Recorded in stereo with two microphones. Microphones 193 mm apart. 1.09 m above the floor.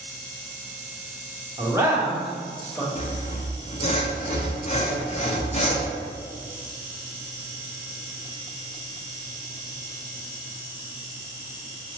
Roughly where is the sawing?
Left.